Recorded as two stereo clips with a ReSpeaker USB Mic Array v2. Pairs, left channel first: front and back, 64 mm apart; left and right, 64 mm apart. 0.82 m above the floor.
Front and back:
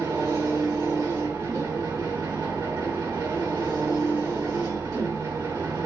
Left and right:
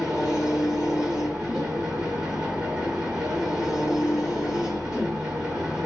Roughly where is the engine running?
Behind.